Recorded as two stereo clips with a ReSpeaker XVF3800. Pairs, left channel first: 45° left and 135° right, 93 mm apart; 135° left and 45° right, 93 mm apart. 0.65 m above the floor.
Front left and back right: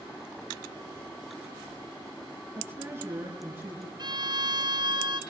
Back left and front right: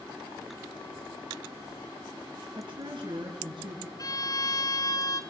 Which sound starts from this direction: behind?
A violin, at 4.0 s.